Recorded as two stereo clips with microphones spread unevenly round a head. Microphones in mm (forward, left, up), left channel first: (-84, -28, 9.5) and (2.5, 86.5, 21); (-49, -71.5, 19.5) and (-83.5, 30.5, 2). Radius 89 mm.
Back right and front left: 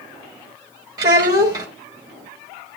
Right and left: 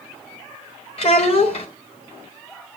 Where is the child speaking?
15° right, 1.2 m.